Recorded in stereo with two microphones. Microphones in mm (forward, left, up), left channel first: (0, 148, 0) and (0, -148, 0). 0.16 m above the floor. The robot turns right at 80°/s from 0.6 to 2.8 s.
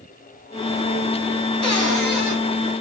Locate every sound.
1.6 s a cupboard door: 85° left, 0.9 m; by 2.4 s 145° left, 0.9 m